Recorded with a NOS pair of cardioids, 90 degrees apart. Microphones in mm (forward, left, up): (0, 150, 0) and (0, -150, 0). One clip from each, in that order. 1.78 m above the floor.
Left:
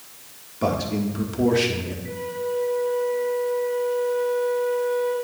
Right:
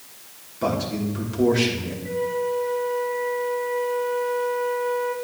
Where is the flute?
Straight ahead, 1.6 m.